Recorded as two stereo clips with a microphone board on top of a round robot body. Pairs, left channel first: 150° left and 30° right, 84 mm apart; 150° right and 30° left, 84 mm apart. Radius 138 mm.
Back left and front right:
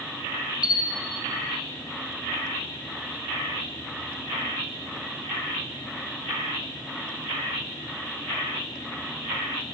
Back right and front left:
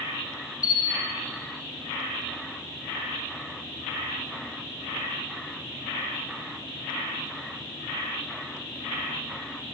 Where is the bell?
175° left, 1.0 m.